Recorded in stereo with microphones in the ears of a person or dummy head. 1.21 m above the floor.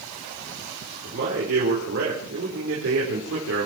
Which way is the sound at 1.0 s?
55° right (ahead or behind).